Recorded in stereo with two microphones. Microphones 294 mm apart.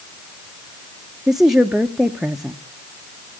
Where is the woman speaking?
Centre (ahead or behind), 0.6 m.